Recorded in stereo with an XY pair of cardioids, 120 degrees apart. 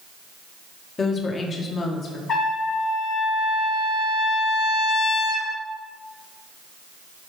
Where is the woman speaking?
35° left, 1.8 m; by 2.2 s 45° left, 2.5 m.